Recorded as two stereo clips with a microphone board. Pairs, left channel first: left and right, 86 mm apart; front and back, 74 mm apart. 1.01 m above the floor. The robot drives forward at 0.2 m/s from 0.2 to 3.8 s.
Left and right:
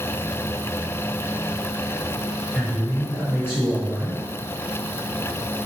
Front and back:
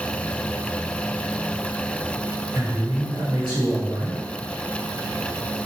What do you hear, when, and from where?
2.5 s a man speaking: 165° right, 1.2 m